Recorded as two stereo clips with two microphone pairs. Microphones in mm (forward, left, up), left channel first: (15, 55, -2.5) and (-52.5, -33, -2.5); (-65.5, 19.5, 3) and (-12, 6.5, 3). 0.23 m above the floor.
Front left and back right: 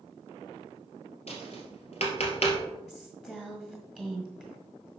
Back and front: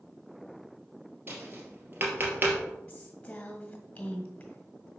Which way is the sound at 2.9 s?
130° left.